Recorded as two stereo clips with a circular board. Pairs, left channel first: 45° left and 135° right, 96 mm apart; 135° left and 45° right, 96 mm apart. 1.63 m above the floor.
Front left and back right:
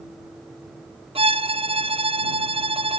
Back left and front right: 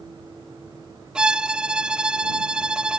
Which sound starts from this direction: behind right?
A violin, at 1.1 s.